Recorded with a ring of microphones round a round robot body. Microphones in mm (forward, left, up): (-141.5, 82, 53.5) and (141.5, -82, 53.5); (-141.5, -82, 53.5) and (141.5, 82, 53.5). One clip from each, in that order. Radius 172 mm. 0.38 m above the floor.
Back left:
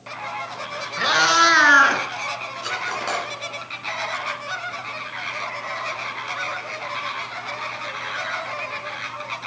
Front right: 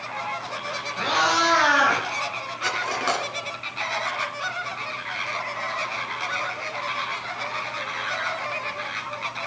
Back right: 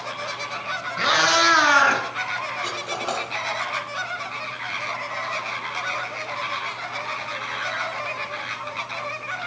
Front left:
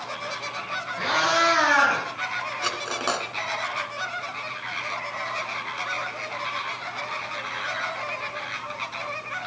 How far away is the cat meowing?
About 3.5 m.